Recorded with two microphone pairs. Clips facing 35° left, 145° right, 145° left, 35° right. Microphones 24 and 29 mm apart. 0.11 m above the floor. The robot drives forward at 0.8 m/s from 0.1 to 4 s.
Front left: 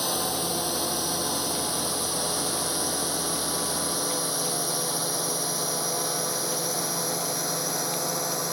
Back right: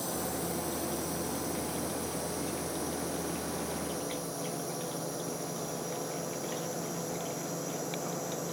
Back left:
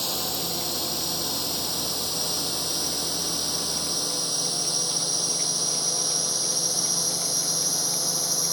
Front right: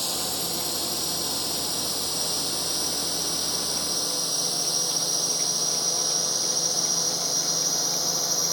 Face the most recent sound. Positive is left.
turn(degrees=45)